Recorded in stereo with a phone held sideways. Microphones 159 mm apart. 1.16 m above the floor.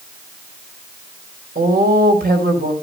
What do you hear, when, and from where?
1.6 s a woman speaking: 80° right, 4.5 m